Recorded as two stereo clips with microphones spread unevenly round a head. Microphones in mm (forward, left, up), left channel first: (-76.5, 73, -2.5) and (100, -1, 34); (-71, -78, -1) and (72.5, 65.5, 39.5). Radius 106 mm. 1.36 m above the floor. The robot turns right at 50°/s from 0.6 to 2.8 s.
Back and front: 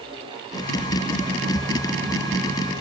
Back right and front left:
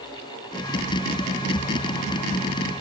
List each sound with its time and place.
Only background noise.